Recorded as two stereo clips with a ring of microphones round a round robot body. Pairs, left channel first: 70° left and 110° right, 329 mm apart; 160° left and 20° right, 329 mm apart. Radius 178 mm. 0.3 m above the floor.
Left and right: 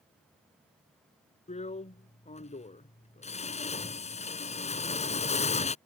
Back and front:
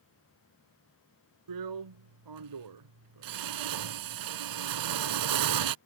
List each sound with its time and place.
1.5 s a drill: 5° right